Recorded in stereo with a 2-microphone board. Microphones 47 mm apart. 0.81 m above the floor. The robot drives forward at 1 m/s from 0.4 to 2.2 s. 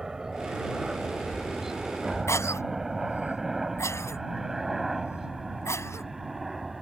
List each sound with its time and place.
0.0 s a helicopter: 10° right (ahead or behind); by 6.8 s centre (ahead or behind)
2.3 s a cough: 85° left